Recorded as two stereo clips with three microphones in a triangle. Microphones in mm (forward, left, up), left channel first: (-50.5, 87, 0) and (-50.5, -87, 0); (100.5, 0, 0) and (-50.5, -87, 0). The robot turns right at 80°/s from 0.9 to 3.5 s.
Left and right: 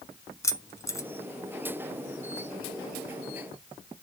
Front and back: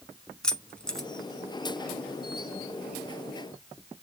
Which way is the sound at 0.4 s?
105° left.